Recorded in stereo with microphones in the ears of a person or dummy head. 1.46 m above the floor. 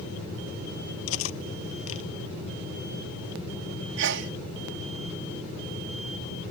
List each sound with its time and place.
1.1 s cutlery clinking: 85° left
4.0 s a sneeze: 65° right (ahead or behind)